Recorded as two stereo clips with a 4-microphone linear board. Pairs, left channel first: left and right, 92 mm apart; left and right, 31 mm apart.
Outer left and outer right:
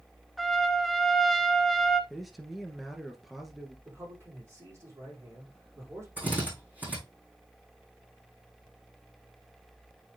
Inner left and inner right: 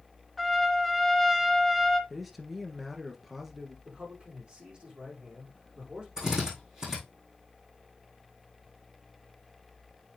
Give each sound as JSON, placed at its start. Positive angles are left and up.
{"t": 0.4, "sound": "a trumpet", "side_deg": 0, "distance_m": 1.0}
{"t": 2.1, "sound": "a man speaking", "side_deg": 0, "distance_m": 1.6}
{"t": 3.9, "sound": "a man speaking", "side_deg": -30, "distance_m": 6.0}
{"t": 6.2, "sound": "a drill", "side_deg": -20, "distance_m": 5.0}